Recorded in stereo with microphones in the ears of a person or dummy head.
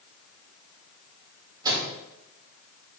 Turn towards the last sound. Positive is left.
turn(degrees=-20)  # may be behind; listen again after turning